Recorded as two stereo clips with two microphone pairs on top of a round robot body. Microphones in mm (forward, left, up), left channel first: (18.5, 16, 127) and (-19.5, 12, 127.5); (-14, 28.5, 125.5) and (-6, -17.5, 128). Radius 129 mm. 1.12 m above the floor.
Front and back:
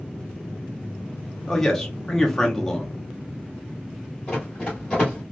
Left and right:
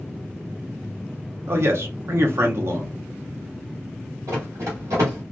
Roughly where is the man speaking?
Right.